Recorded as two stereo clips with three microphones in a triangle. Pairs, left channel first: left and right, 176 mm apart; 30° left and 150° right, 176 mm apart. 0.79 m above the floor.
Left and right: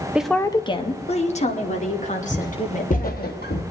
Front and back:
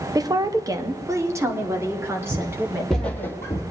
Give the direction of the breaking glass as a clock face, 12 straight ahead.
No breaking glass in this recording.